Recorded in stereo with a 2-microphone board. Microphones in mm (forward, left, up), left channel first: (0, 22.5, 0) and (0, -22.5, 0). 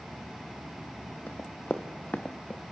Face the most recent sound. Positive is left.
turn(degrees=35)  # may be behind; listen again after turning